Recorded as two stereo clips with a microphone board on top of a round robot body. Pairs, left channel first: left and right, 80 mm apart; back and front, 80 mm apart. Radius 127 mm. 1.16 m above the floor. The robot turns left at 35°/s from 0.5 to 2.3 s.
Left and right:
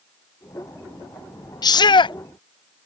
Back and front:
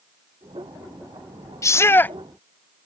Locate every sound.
1.6 s a shout: 130° left; by 2.2 s 110° left